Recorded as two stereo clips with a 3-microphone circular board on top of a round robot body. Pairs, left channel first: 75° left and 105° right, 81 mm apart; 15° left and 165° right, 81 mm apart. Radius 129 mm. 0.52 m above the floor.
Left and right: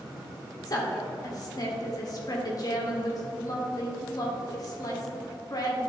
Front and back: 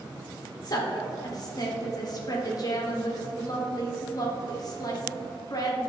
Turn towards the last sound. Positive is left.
turn(degrees=45)